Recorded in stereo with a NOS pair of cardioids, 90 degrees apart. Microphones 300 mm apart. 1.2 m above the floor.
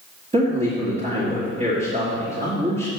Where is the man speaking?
20° right, 2.5 m.